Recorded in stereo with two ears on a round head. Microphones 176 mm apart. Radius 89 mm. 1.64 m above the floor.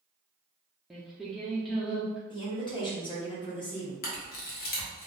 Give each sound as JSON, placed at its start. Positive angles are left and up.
{"t": 0.9, "sound": "singing", "side_deg": 0, "distance_m": 0.6}
{"t": 2.3, "sound": "a woman speaking", "side_deg": 25, "distance_m": 1.0}
{"t": 4.0, "sound": "a camera shutter", "side_deg": 50, "distance_m": 0.9}